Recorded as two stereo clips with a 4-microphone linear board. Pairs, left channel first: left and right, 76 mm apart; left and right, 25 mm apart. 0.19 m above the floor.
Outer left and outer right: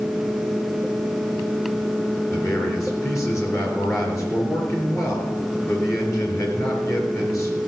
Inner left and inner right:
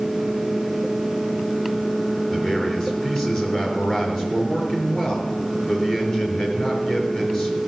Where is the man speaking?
40° left (ahead or behind), 3.5 m.